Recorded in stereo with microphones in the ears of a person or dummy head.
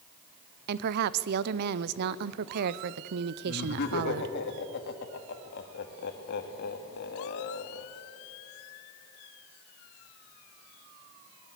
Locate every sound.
0.7 s a woman speaking: 60° right (ahead or behind), 0.7 m
3.5 s laughter: 65° left (ahead or behind), 2.5 m